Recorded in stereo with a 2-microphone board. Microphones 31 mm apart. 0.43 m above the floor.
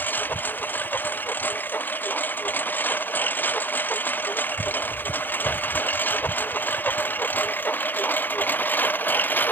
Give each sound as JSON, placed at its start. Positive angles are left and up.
{"t": 0.0, "sound": "a lawn mower", "side_deg": 75}